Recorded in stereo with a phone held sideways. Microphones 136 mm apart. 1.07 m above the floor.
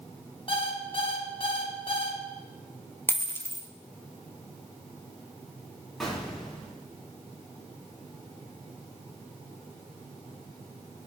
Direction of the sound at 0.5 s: 40° left (ahead or behind).